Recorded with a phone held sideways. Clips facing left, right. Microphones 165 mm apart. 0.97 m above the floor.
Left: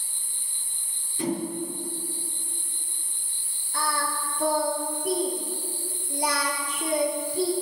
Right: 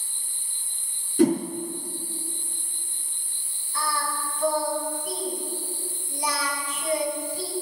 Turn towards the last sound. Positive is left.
turn(degrees=65)  # may be behind; listen again after turning